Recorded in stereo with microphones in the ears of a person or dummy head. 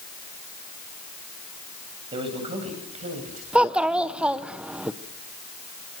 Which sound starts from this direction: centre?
A child speaking, at 3.5 s.